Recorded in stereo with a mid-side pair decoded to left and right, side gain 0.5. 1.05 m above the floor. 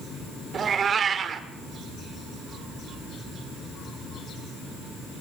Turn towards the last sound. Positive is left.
turn(degrees=-45)